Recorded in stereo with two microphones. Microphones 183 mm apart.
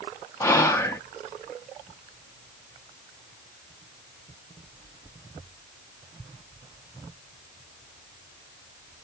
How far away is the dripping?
No dripping in this recording.